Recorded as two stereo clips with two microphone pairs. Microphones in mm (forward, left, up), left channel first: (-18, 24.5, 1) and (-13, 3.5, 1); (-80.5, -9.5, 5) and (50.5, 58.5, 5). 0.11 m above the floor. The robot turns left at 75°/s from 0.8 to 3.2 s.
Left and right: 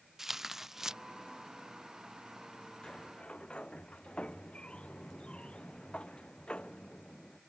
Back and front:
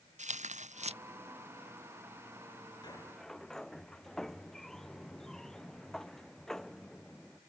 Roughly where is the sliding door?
Behind left.